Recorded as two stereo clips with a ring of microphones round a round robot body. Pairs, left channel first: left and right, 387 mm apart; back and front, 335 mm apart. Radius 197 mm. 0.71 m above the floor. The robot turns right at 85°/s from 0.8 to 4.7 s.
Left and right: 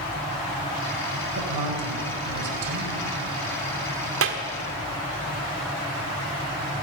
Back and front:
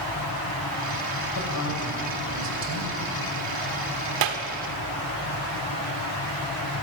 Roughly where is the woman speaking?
Behind right.